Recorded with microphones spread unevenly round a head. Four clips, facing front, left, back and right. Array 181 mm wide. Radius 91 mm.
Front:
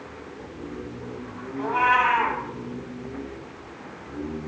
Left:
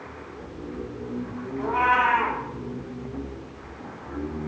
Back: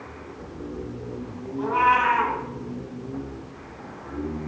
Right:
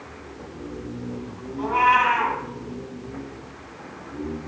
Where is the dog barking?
I don't hear a dog barking.